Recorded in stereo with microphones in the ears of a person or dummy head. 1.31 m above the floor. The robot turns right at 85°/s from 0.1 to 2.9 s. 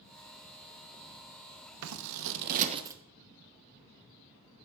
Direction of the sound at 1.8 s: 65° right (ahead or behind).